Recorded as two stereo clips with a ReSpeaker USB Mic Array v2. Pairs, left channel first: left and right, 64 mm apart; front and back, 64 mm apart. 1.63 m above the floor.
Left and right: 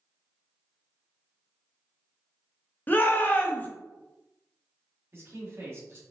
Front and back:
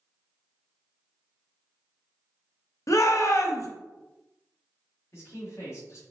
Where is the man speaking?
40° right, 1.3 m.